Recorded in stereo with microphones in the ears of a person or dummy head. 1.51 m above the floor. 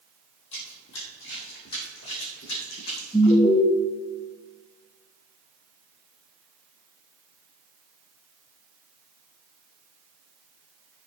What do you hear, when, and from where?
0.5 s running footsteps: 50° left (ahead or behind), 2.5 m
3.1 s an alarm: 25° left (ahead or behind), 1.1 m